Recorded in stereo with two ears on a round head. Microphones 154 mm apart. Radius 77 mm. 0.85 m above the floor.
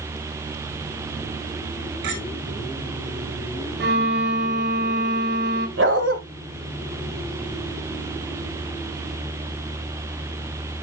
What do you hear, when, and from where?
2.0 s a clink: 75° right (ahead or behind), 5 m
3.8 s a violin: 65° right (ahead or behind), 1.5 m
5.8 s a dog barking: 80° right, 1.8 m